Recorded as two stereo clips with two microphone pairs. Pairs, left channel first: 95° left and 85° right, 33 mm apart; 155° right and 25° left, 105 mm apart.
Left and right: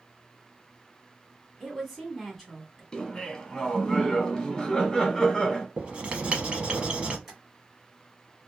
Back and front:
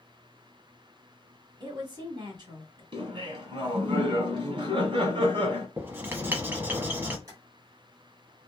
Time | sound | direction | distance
1.6 | a woman speaking | 5° right | 1.4 m
2.9 | laughter | 30° left | 1.5 m
5.8 | writing | 40° right | 0.8 m
7.3 | tapping | 5° right | 1.6 m